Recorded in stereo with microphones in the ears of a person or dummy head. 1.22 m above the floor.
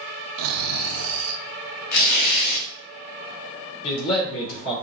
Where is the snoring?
85° right, 0.5 m.